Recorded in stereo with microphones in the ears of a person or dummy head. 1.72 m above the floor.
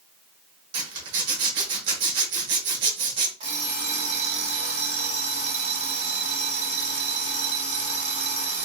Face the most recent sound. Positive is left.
turn(degrees=-45)  # may be behind; listen again after turning